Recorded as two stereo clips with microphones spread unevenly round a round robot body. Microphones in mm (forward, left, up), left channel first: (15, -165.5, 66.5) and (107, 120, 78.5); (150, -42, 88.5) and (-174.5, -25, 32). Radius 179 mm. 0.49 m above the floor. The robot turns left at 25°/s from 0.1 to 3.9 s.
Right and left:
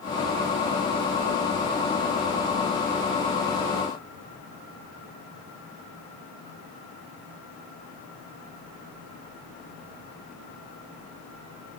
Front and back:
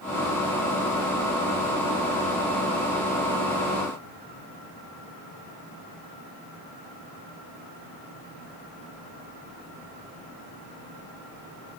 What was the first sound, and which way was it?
Only background noise.